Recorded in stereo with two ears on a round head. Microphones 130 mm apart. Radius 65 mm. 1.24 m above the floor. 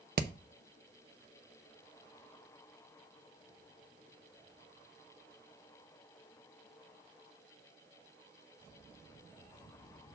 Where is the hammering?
65° right (ahead or behind), 0.6 m.